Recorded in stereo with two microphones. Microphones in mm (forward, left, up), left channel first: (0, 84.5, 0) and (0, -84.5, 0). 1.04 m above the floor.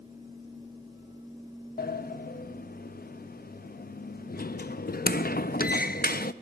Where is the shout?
No shout in this recording.